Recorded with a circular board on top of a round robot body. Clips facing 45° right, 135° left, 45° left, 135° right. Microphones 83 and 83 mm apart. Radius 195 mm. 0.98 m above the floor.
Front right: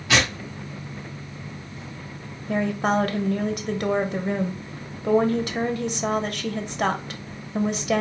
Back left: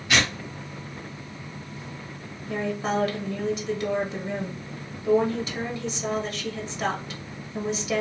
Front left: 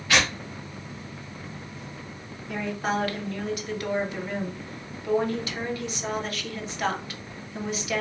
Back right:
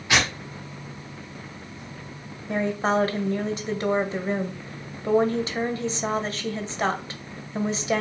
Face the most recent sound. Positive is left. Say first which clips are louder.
# front right 4 dB, back right 5 dB
turn(degrees=-75)